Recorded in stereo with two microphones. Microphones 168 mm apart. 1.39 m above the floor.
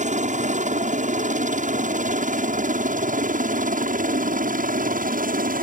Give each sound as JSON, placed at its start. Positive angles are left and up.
{"t": 0.0, "sound": "a helicopter", "side_deg": -45}